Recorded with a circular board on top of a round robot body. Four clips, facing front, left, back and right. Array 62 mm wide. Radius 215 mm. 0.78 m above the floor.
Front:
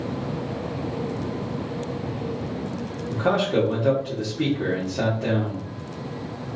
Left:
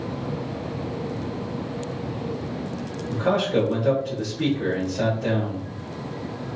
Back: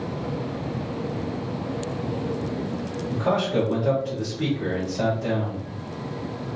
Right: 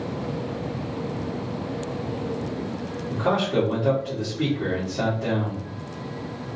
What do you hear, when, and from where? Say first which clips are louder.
3.1 s a man speaking: left 1 dB, front 2 dB; 10° right, 1.7 m